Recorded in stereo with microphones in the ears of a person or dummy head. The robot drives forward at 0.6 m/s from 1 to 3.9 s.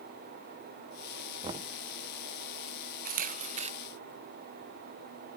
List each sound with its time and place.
1.4 s knocking: 25° right (ahead or behind); by 1.8 s 35° right (ahead or behind)
3.0 s a camera shutter: 50° right (ahead or behind); by 3.7 s 35° right (ahead or behind)